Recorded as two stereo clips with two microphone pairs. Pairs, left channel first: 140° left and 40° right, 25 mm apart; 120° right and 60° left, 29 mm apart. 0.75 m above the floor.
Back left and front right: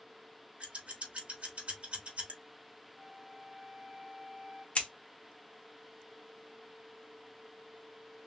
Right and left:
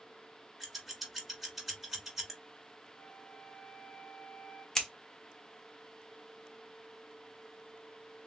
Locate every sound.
0.6 s scissors: 25° right, 1.3 m
3.0 s a flute: 165° right, 1.7 m
4.8 s scissors: 175° left, 1.1 m